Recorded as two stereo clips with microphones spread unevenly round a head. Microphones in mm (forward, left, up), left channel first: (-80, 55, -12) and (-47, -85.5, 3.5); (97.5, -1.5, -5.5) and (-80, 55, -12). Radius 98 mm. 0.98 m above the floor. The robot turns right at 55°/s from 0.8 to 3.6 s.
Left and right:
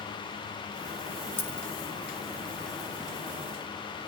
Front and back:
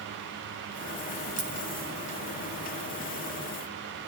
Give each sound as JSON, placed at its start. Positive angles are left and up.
{"t": 1.4, "sound": "a dropped coin", "azimuth_deg": 180, "distance_m": 2.5}